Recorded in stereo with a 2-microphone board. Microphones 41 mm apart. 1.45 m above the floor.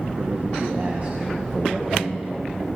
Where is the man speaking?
75° right (ahead or behind), 1.9 m; by 2.7 s centre (ahead or behind), 2.5 m.